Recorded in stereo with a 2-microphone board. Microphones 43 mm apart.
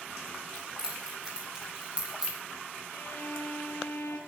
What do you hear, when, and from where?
0.6 s keys jangling: 15° right (ahead or behind), 8.5 m; by 2.4 s 20° right (ahead or behind), 8 m
2.9 s a violin: 65° left (ahead or behind), 2.5 m